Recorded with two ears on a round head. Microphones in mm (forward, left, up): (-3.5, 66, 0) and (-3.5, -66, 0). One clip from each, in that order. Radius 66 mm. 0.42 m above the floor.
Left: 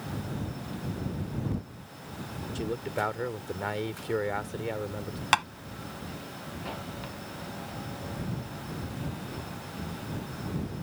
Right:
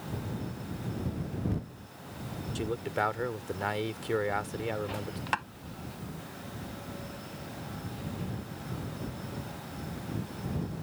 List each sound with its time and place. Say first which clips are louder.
2.5 s a man speaking: even; 15° right (ahead or behind)
5.3 s tapping: left 7 dB; 70° left (ahead or behind)